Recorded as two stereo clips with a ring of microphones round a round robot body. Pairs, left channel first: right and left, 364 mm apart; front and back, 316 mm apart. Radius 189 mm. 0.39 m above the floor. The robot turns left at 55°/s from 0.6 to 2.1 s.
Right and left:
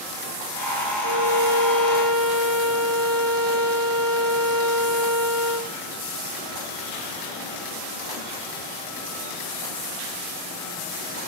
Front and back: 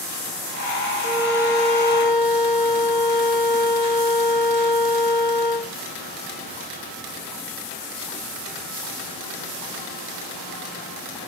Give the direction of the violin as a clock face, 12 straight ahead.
8 o'clock.